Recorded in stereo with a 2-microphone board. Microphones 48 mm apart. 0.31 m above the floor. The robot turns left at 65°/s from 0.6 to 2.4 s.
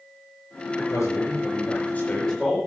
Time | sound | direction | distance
0.8 | a man speaking | 120° left | 5.5 m